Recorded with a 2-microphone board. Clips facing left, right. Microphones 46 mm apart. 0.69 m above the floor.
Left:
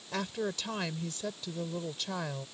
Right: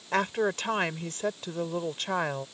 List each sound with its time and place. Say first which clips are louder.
0.1 s a woman speaking: right 8 dB; 55° right (ahead or behind)